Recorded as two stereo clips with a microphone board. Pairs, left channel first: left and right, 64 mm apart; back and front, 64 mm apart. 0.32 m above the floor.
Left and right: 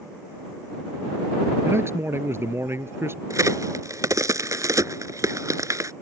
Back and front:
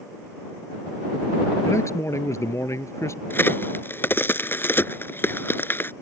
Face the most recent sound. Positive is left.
turn(degrees=-125)